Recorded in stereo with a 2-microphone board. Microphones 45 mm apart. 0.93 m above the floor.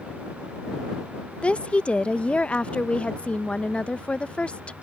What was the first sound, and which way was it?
A woman speaking, 30° left (ahead or behind).